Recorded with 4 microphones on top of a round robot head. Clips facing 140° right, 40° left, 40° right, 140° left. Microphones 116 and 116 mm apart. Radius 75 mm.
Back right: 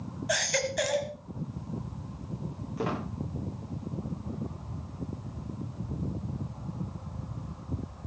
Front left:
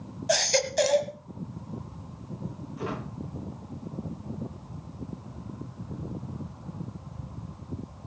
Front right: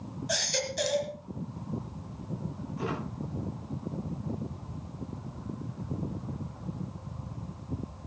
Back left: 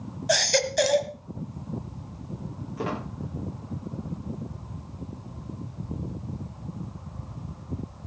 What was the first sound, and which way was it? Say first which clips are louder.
A baby crying: front left 5 dB, back left 10 dB; 100° left.